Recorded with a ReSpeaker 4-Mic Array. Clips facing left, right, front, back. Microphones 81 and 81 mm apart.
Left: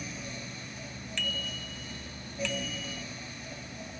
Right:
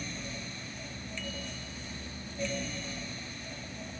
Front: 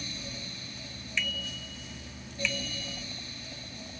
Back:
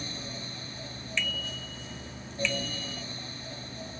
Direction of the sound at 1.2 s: 85° left.